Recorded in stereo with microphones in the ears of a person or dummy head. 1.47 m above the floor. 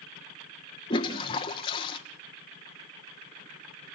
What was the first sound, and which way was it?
A toilet flushing, 25° left (ahead or behind).